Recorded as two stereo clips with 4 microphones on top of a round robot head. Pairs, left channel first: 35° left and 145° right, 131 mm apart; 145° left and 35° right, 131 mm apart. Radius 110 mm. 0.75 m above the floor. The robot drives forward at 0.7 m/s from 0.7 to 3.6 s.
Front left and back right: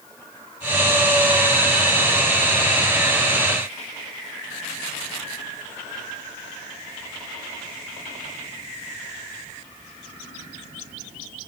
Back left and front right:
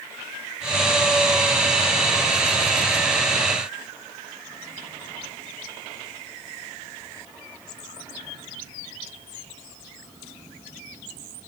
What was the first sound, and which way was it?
Only background noise.